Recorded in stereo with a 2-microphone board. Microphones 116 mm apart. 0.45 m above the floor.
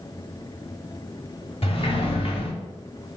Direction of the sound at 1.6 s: 50° left (ahead or behind).